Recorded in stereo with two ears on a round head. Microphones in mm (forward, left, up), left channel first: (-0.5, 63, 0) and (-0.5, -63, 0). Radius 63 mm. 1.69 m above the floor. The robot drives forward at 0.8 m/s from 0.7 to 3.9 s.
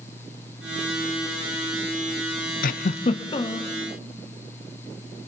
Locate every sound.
2.6 s a giggle: 65° left (ahead or behind), 0.6 m; by 3.7 s 25° left (ahead or behind), 1.3 m